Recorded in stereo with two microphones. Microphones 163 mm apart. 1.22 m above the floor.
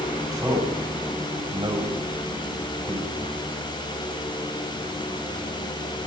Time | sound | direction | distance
0.3 | a man speaking | 20° right (ahead or behind) | 10 m